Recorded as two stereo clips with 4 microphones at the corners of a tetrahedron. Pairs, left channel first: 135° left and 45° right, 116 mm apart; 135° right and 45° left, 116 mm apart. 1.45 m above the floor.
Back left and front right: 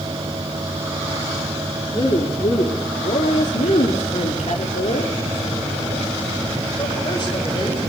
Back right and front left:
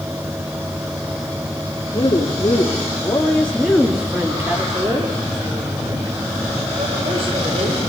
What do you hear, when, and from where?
1.9 s a woman speaking: straight behind, 3.5 m; by 7.9 s 80° left, 7 m